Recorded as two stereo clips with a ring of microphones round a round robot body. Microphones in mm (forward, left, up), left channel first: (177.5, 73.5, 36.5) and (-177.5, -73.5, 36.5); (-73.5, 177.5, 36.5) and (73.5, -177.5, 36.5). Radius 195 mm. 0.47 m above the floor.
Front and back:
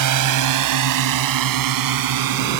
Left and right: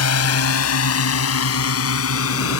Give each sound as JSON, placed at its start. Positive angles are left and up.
{"t": 0.0, "sound": "a drone", "azimuth_deg": 160}